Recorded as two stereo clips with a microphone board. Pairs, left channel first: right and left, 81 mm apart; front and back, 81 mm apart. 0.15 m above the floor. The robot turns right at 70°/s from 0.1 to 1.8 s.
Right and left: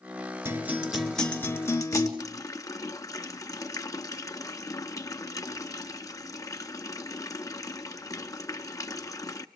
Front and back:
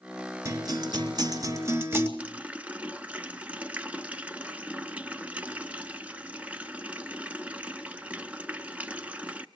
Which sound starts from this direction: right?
A running tap, at 2.2 s.